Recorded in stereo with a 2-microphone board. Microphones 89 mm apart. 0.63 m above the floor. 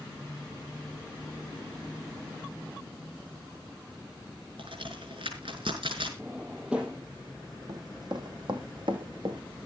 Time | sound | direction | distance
4.6 | a crack | 75° right (ahead or behind) | 5 m
6.2 | a drawer | 15° right (ahead or behind) | 5 m
7.7 | running footsteps | 45° right (ahead or behind) | 1.5 m